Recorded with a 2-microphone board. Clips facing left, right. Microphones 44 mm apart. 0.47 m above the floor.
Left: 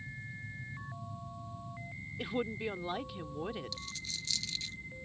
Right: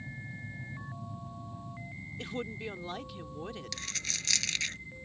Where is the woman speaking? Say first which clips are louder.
Left 3 dB; 10° left (ahead or behind).